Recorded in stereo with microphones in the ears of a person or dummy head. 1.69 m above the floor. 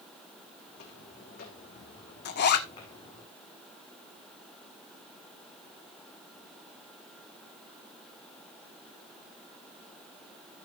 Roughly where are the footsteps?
Left.